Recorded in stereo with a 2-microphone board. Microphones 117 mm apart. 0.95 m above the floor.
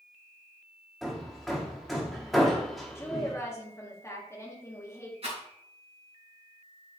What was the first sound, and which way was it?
Hammering, centre (ahead or behind).